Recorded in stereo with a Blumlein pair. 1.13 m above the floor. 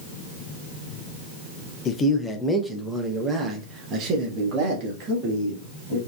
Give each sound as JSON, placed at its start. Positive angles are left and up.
{"t": 1.9, "sound": "a man speaking", "azimuth_deg": 25, "distance_m": 0.8}